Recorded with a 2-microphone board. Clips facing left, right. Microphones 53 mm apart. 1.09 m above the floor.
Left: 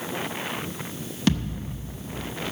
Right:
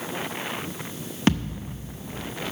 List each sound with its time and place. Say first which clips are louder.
1.3 s a thud: right 1 dB; 35° right (ahead or behind), 0.7 m